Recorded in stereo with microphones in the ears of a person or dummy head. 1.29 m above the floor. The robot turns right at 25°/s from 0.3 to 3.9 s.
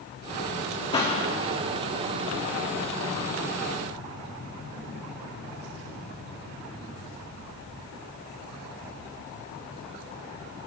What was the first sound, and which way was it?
A pop, 25° left (ahead or behind).